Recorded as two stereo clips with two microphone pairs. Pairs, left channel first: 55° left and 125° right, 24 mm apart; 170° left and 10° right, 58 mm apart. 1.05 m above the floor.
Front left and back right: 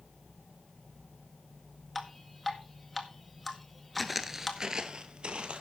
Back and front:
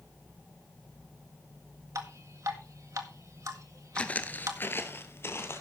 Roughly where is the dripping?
Ahead right.